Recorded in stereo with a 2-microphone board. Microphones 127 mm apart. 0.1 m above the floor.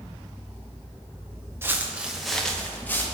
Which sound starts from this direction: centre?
Footsteps, at 1.6 s.